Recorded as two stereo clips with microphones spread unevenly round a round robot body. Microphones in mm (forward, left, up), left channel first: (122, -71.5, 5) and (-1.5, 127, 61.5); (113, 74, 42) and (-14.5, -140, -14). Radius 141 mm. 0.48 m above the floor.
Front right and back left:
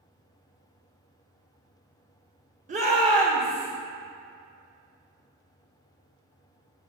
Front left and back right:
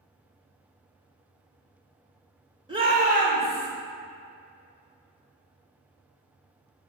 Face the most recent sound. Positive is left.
turn(degrees=-150)